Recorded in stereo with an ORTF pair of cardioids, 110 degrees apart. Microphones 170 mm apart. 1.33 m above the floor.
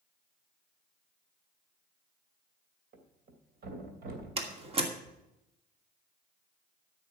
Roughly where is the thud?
Ahead right.